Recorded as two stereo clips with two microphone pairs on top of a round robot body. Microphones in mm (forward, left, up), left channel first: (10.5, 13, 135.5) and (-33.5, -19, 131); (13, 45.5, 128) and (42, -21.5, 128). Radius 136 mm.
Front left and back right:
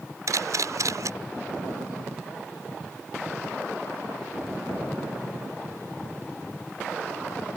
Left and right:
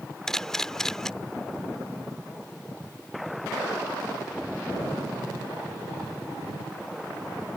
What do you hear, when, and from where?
0.3 s a camera shutter: 165° right